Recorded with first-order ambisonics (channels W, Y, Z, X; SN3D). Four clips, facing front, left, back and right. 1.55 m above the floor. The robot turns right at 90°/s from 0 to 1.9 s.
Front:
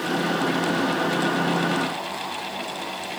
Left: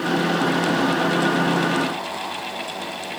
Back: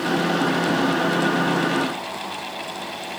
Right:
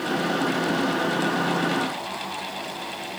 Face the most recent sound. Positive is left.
No sound to turn to.